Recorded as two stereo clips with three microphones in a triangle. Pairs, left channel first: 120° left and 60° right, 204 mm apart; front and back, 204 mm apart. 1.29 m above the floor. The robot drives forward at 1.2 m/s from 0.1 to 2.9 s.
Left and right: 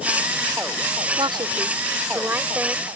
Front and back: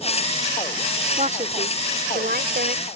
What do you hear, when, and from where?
1.2 s a woman speaking: 125° right; by 2.9 s 145° right